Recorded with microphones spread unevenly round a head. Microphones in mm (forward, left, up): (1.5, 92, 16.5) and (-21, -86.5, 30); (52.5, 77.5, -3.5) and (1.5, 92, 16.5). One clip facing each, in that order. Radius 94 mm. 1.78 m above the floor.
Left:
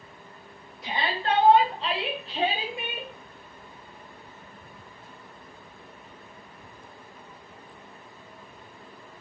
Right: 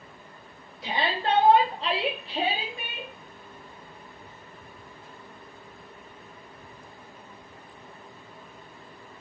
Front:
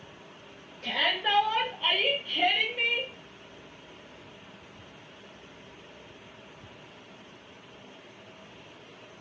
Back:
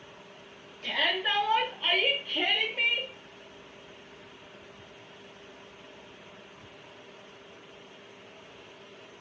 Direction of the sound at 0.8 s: 95° right.